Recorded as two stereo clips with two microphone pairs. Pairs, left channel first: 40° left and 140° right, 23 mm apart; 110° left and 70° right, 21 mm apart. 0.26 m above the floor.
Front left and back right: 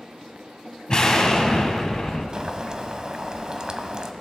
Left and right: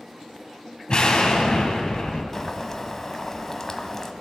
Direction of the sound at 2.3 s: Straight behind.